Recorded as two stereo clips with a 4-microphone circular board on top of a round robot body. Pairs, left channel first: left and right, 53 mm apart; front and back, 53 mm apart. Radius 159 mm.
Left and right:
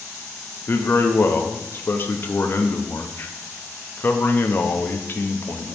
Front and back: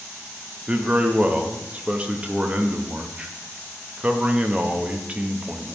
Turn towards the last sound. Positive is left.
turn(degrees=120)